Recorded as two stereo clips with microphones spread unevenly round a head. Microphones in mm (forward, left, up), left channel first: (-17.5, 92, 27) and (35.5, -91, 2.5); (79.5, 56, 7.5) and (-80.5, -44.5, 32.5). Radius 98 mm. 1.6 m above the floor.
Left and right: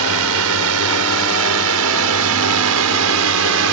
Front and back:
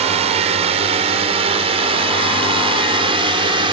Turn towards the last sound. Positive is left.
turn(degrees=-80)